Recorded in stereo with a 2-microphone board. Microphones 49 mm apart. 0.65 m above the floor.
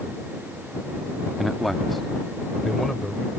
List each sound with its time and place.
1.4 s a man speaking: centre (ahead or behind); by 3.3 s 5° left (ahead or behind)